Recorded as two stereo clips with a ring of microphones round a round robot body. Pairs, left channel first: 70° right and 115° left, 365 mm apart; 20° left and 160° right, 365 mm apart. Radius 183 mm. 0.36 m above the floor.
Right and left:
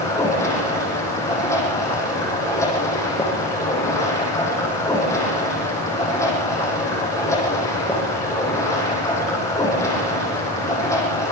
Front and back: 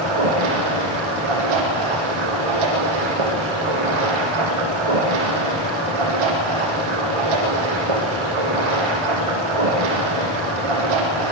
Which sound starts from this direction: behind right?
Running water, at 0.0 s.